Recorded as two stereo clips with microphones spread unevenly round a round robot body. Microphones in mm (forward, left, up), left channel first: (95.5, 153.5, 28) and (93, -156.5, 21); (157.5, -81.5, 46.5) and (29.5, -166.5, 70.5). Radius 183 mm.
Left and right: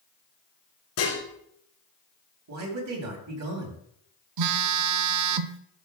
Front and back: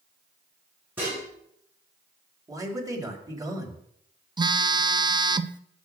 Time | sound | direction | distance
1.0 | dishes clattering | 130° left | 3 m
2.5 | a man speaking | 75° right | 2.5 m
4.4 | a phone buzzing | 75° right | 0.5 m